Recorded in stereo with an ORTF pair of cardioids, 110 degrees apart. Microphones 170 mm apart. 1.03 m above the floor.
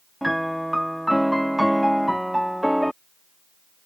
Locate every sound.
0.2 s a piano: straight ahead